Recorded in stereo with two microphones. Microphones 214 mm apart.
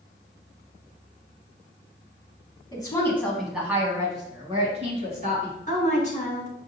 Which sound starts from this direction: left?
A woman speaking, at 5.7 s.